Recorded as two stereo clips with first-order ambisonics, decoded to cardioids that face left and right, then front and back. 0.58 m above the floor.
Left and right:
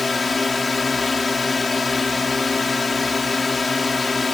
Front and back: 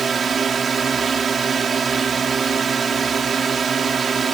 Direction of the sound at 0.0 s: 145° left.